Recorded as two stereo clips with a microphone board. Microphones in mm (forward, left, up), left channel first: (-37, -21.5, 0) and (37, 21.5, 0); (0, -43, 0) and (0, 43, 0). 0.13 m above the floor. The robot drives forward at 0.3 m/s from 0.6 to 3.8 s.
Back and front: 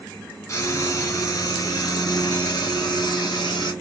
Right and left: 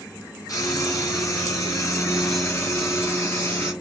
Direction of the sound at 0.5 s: 110° right.